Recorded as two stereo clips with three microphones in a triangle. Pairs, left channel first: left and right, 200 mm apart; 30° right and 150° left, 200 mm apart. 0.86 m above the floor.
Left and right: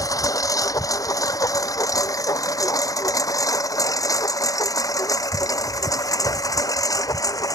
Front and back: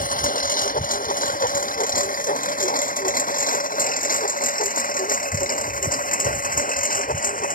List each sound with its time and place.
0.0 s a lawn mower: 15° left